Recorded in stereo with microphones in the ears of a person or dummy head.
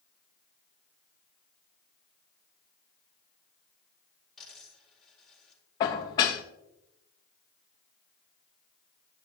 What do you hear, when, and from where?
4.4 s a dropped coin: 5° left (ahead or behind), 4 m
5.8 s dishes clattering: 20° left (ahead or behind), 0.6 m